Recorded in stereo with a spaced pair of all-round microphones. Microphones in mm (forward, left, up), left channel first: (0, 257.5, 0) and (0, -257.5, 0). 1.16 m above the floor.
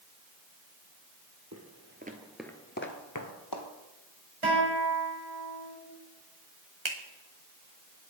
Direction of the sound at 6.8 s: 60° right (ahead or behind).